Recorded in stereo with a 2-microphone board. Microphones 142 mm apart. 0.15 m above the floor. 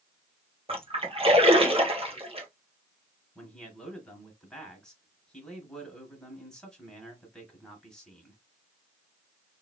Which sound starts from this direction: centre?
A man speaking, at 3.4 s.